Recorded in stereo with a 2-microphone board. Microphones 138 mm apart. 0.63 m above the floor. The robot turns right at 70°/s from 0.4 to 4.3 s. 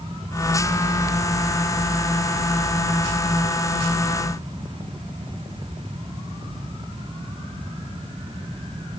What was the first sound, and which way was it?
Only background noise.